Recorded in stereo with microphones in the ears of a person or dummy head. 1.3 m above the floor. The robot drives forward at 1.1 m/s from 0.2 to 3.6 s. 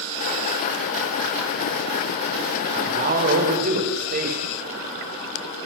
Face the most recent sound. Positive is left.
turn(degrees=-45)  # may be behind; listen again after turning